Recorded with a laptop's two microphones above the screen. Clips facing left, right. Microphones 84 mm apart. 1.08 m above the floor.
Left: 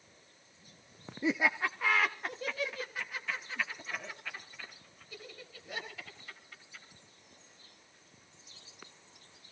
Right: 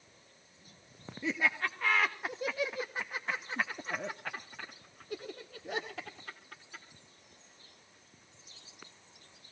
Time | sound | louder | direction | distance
1.2 | laughter | left 2 dB | 25° left (ahead or behind) | 1.2 m